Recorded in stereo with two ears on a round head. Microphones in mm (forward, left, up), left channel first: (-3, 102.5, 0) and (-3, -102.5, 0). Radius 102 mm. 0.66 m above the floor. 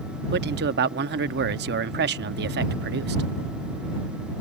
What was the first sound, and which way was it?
A man speaking, 45° right (ahead or behind).